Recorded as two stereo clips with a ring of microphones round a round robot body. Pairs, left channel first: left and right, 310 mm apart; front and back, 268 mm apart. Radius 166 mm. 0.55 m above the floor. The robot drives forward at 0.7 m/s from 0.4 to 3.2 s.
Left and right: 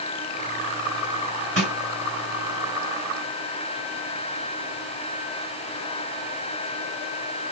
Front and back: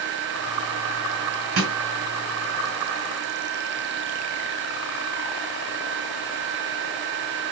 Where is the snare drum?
155° left, 2.5 m.